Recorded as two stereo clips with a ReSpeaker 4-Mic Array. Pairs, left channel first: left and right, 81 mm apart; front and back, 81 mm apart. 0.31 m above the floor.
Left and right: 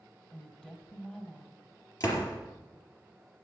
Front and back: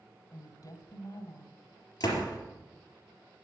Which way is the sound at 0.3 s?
10° left.